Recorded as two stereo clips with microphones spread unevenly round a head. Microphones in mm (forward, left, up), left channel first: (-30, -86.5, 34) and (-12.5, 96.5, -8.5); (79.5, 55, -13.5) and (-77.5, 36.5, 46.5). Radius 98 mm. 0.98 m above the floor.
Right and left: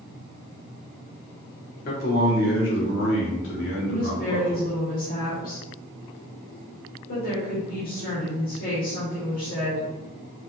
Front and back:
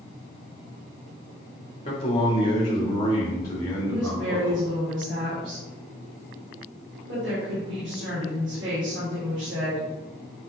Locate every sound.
1.9 s a man speaking: 45° right, 2.5 m; by 4.6 s 75° right, 3.5 m
3.9 s a woman speaking: 140° right, 3 m